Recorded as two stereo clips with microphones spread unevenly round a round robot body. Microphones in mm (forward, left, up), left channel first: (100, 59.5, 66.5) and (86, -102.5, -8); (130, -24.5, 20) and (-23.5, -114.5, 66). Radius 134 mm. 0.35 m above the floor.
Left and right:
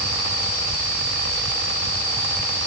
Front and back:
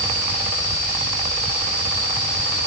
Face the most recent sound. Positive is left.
No sound to turn to.